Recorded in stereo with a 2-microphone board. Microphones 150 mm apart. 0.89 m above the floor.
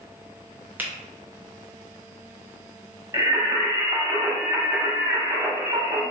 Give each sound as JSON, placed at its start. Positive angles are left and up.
{"t": 0.8, "sound": "a finger snap", "side_deg": -10, "distance_m": 0.7}
{"t": 3.1, "sound": "singing", "side_deg": -25, "distance_m": 1.1}